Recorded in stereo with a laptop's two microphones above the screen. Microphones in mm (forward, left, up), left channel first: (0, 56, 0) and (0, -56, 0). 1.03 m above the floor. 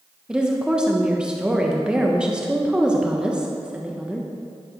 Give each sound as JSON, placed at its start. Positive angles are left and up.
{"t": 0.3, "sound": "a woman speaking", "side_deg": -10, "distance_m": 0.6}